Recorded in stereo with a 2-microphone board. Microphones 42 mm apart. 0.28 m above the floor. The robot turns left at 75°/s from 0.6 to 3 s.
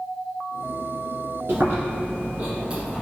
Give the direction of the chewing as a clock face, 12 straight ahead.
2 o'clock.